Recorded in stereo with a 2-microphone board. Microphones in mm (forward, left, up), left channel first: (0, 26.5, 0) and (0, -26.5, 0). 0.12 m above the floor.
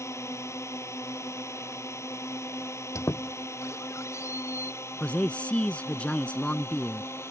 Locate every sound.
0.0 s a drone: 65° left (ahead or behind); by 7.3 s 55° left (ahead or behind)
3.0 s a squeak: 70° left (ahead or behind)
5.0 s a man speaking: 25° left (ahead or behind)